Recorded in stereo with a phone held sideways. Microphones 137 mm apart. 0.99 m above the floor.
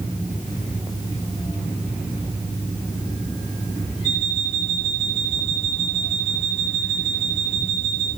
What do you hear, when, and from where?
4.0 s an alarm clock: 50° right (ahead or behind), 3.5 m